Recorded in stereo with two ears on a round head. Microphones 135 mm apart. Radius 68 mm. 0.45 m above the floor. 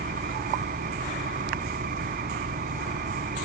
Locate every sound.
0.0 s an engine running: 65° right (ahead or behind)